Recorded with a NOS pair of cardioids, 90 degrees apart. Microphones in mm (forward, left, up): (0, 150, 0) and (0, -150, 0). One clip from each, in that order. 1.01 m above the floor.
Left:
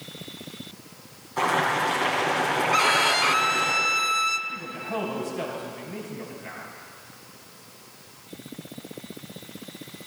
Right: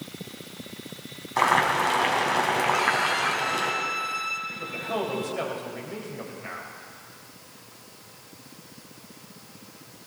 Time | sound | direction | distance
1.4 | boiling | 60° right | 4.5 m
2.7 | a violin | 35° left | 0.7 m
4.5 | a man speaking | 65° right | 6 m